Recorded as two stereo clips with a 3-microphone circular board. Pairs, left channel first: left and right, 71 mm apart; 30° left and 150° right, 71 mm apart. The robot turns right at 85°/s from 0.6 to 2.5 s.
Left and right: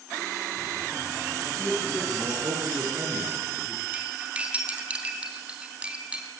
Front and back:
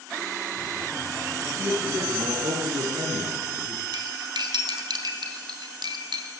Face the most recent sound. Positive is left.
turn(degrees=-165)